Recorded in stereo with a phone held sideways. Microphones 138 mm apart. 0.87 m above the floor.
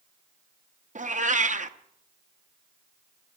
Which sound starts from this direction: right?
A cat meowing, at 0.9 s.